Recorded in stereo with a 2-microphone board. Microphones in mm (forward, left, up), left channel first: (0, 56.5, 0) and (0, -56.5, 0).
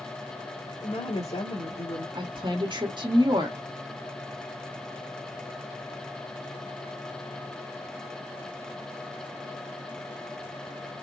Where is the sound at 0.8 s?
75° left (ahead or behind), 1.9 m.